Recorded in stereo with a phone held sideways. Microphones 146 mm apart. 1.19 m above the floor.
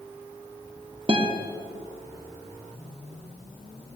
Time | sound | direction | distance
1.1 | a guitar | 40° right (ahead or behind) | 0.8 m